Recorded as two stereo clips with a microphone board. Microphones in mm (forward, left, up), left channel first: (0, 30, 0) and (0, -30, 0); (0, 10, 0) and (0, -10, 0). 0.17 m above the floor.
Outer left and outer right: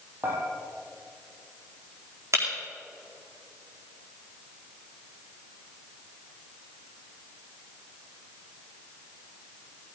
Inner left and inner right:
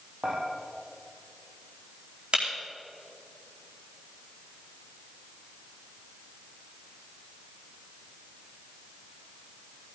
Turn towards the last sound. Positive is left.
turn(degrees=-55)  # may be behind; listen again after turning